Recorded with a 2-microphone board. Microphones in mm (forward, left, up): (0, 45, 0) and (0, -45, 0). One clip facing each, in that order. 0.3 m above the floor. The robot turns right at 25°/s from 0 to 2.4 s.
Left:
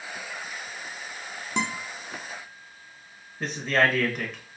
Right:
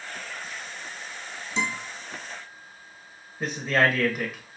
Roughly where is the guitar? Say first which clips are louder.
Even; left.